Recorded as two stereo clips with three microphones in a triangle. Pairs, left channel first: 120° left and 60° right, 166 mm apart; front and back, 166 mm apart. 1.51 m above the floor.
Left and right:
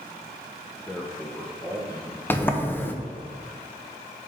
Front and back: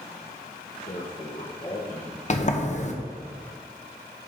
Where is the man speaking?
35° left, 1.1 m; by 2.2 s 50° left, 2 m.